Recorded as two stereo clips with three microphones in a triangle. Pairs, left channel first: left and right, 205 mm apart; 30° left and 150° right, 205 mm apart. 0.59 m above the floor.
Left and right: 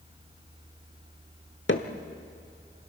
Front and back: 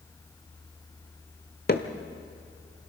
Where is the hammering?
70° left, 1.3 m.